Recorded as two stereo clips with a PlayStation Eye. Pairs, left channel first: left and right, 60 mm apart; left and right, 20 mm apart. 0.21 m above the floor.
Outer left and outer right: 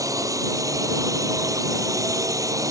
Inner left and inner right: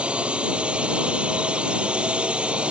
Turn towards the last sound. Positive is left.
turn(degrees=-65)  # may be behind; listen again after turning